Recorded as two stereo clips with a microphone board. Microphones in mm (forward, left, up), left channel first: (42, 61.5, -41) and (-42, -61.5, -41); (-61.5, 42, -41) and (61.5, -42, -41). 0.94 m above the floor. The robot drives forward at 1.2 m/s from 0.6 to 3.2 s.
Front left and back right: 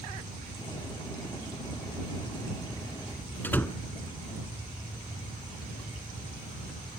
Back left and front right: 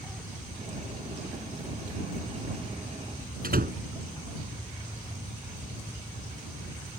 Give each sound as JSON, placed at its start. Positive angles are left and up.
{"t": 3.4, "sound": "a door slam", "azimuth_deg": -20}